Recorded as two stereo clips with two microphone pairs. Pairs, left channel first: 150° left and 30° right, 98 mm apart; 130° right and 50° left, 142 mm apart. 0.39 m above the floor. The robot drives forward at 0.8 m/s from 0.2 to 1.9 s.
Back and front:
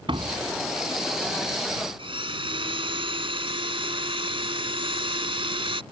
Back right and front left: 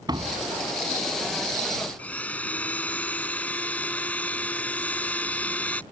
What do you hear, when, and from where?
0.1 s a door slam: 10° right
2.0 s a blender: 55° right